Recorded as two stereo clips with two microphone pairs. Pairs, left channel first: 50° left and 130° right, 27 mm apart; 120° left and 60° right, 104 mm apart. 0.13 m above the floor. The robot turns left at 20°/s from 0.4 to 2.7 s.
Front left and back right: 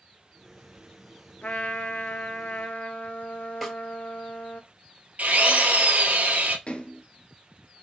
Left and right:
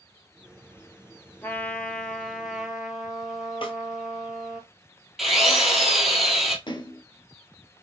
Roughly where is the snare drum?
Behind left.